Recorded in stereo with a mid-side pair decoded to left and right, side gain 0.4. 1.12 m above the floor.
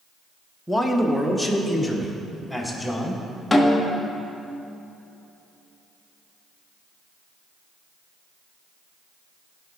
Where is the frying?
I don't hear frying.